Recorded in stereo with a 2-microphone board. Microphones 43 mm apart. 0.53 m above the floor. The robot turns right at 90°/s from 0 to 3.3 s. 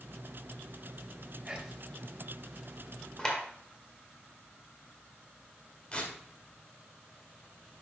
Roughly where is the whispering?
Right.